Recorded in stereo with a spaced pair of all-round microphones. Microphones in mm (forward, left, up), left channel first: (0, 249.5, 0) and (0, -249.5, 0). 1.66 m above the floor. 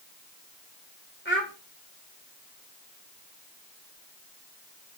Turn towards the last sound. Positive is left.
turn(degrees=20)  # may be behind; listen again after turning